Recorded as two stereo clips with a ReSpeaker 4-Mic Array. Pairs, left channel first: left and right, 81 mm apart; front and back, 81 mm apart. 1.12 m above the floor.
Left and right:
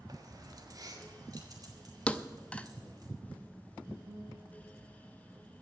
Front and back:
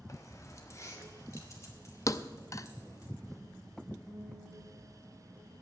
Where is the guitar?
75° right, 4.5 m.